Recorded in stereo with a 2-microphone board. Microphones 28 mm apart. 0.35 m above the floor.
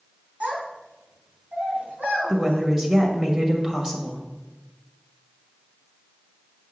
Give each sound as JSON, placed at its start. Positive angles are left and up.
{"t": 0.4, "sound": "a child speaking", "side_deg": -70, "distance_m": 3.0}
{"t": 2.3, "sound": "a woman speaking", "side_deg": -15, "distance_m": 1.4}